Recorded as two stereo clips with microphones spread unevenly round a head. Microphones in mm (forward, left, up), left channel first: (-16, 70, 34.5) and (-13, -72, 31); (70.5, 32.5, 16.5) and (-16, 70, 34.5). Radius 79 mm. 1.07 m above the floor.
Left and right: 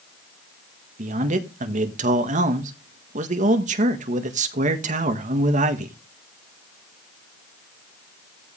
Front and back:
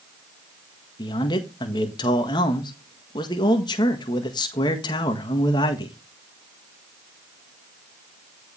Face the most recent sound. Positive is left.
turn(degrees=-60)